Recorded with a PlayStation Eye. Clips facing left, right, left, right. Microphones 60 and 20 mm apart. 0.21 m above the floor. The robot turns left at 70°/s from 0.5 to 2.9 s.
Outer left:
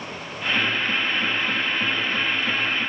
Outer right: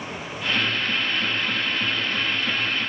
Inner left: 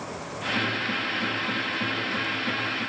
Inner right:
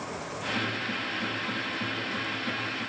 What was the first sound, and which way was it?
Only background noise.